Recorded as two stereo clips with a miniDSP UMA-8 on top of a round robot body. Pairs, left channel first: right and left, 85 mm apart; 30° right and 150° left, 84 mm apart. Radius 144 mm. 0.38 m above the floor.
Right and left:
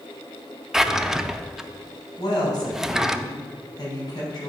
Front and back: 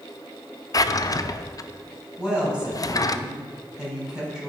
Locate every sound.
0.7 s a drawer: 5° left, 0.5 m
2.2 s a woman speaking: 130° right, 3.5 m